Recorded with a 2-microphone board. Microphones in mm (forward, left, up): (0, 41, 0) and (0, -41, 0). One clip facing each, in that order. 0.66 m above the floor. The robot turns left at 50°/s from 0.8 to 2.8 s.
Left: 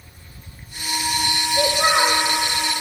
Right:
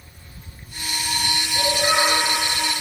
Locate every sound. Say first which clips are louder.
1.5 s a child speaking: left 3 dB; 95° left, 1.8 m; by 2.2 s 60° left, 1.8 m